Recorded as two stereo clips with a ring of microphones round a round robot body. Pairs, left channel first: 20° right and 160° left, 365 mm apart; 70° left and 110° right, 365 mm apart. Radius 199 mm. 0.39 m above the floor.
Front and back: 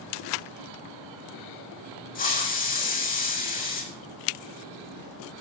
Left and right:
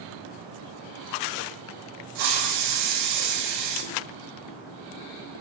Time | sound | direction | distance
2.1 | a hiss | 90° right | 5.5 m